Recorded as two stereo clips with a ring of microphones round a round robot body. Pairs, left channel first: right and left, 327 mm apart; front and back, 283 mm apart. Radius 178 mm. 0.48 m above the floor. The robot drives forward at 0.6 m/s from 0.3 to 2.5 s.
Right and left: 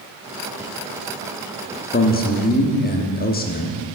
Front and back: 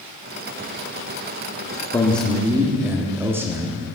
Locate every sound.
1.9 s a man speaking: 70° right, 1.2 m; by 3.9 s 105° right, 1.1 m